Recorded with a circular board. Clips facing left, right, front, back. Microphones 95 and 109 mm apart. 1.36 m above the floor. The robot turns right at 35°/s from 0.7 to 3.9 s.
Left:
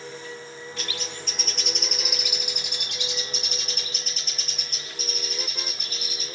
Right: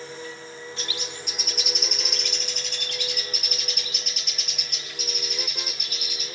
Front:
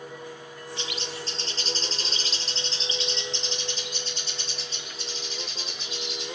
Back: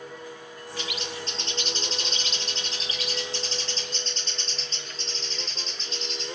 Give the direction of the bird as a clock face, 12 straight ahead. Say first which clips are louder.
Left 2 dB, back 2 dB; 1 o'clock.